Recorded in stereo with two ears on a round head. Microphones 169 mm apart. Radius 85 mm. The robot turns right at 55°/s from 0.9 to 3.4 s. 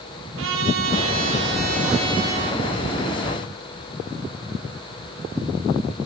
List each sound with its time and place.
0.4 s a trumpet: 95° right, 8 m; by 2.6 s straight ahead, 8 m